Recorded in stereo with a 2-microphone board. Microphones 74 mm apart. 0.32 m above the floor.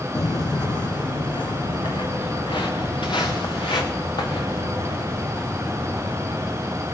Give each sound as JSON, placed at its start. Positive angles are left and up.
{"t": 0.1, "sound": "footsteps", "side_deg": 50, "distance_m": 0.8}